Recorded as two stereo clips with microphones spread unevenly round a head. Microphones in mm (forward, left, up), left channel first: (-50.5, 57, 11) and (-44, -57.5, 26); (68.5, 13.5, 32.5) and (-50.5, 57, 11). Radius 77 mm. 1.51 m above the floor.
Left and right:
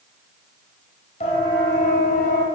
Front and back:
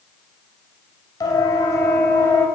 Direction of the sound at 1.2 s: 40° left.